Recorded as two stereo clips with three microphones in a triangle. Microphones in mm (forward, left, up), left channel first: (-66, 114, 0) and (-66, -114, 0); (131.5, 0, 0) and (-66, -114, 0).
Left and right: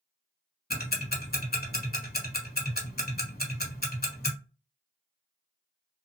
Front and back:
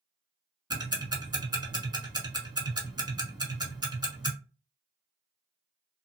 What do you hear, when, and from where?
0.7 s ticking: 140° left, 0.8 m